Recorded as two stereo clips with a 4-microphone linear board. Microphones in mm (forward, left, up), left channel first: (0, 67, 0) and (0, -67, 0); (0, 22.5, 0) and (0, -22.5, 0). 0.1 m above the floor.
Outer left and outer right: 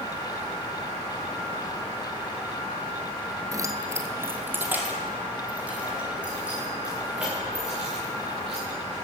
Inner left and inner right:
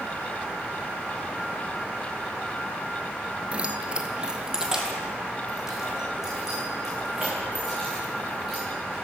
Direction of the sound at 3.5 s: 25° right (ahead or behind).